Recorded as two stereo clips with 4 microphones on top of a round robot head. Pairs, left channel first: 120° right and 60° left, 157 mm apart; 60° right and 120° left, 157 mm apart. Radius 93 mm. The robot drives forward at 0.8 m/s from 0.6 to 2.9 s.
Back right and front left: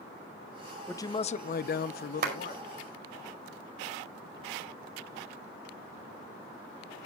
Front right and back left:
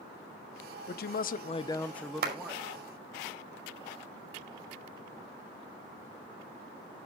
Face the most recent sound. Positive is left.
turn(degrees=100)